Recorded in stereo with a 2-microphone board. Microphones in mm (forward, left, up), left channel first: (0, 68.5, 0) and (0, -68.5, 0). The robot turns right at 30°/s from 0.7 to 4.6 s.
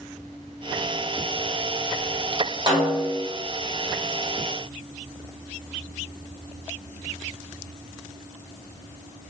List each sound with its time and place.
2.7 s a snare drum: 30° right (ahead or behind), 1.1 m; by 3.2 s 25° right (ahead or behind), 1.1 m